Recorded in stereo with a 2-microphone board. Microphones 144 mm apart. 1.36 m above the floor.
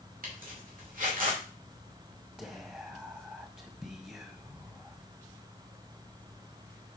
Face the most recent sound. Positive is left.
turn(degrees=-10)  # may be behind; listen again after turning